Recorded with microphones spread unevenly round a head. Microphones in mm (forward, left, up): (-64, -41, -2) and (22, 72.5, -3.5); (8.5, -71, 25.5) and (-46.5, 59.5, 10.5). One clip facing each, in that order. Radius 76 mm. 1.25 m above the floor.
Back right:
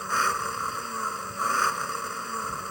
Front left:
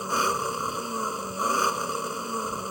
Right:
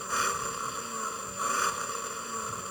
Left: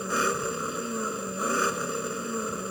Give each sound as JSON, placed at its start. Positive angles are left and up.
{"t": 0.0, "sound": "an engine running", "azimuth_deg": 125}